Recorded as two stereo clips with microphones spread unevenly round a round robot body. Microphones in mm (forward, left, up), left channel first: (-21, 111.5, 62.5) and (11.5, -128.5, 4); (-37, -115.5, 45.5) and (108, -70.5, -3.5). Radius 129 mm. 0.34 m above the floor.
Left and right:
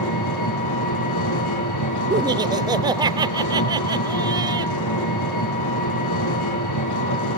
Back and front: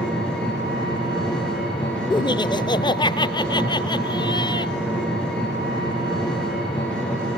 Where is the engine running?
110° left, 7 m.